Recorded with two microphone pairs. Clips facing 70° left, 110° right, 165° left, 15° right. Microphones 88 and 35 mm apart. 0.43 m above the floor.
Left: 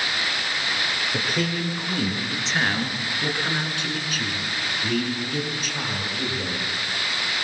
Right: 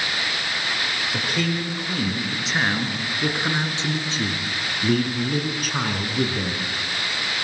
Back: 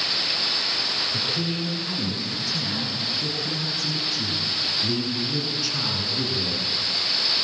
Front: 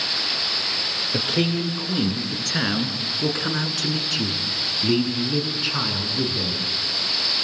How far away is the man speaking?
About 6.5 m.